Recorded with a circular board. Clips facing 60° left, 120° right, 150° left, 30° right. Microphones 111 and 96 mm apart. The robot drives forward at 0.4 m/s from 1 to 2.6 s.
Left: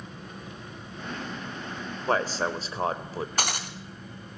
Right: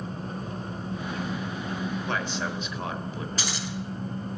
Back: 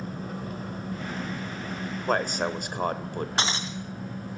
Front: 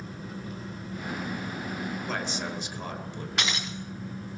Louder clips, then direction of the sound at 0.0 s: Right 7 dB, back 4 dB; 170° right.